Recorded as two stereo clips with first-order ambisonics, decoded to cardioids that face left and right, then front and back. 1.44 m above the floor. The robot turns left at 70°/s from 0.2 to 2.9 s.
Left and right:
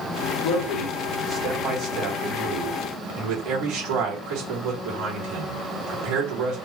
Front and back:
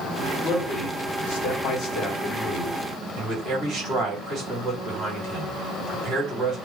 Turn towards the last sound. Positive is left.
turn(degrees=-120)